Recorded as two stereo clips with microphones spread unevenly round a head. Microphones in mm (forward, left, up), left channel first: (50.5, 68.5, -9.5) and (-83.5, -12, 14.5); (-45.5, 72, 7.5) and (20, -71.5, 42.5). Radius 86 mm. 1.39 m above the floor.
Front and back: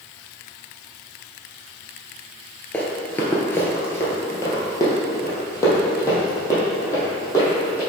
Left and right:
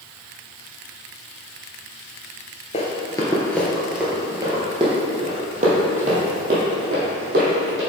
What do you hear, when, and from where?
2.7 s running footsteps: 125° left, 1.4 m; by 7.8 s 45° right, 3.5 m